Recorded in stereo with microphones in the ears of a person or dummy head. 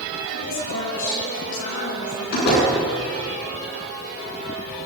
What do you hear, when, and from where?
0.3 s a woman speaking: 70° left (ahead or behind), 9.5 m
2.3 s a door slam: 60° left (ahead or behind), 9.5 m